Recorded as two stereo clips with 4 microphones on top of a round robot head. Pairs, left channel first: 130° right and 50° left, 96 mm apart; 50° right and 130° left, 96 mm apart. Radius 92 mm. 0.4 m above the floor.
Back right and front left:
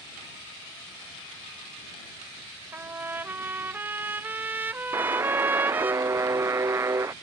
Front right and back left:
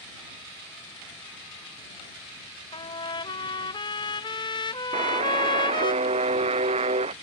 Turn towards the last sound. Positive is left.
turn(degrees=115)